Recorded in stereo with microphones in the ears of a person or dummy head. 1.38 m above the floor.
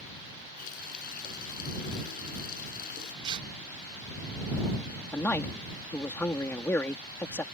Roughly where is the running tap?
Left.